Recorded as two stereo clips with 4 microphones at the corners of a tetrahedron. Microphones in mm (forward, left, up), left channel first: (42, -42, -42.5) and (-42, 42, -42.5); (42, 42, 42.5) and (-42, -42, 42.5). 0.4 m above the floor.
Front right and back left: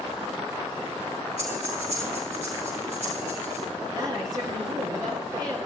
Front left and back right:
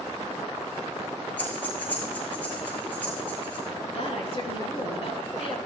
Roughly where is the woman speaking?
Left.